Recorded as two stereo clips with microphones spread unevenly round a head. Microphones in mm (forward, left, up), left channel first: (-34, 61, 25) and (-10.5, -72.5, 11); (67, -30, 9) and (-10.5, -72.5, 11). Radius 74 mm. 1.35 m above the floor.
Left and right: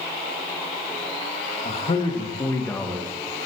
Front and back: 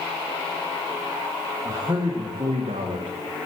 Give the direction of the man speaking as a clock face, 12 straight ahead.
7 o'clock.